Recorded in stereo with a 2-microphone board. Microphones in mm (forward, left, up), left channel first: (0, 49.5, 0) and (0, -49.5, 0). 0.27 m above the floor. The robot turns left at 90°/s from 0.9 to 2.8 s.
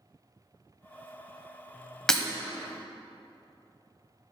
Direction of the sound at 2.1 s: 5° left (ahead or behind).